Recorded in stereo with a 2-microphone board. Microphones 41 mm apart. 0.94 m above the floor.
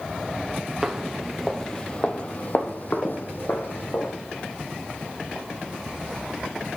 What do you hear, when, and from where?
0.8 s footsteps: 15° right (ahead or behind), 1.0 m; by 4.1 s 60° left (ahead or behind), 2.0 m